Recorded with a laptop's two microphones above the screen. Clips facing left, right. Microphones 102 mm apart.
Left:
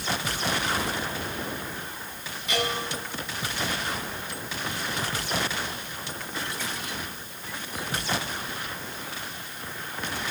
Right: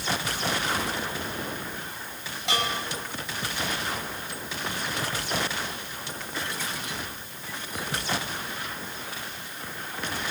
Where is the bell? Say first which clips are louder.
Even; 70° right (ahead or behind), 9 m.